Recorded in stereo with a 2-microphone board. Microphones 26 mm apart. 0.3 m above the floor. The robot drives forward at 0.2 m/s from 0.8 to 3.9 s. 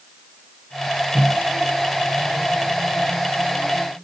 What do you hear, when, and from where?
1.1 s a microwave: 20° right (ahead or behind), 3 m